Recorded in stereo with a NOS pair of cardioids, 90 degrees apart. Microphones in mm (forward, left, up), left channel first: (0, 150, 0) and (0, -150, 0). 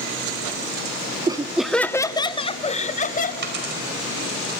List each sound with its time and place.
1.3 s laughter: 15° right, 0.6 m; by 3.3 s 25° left, 1.4 m
3.4 s a dropped coin: 35° right, 4 m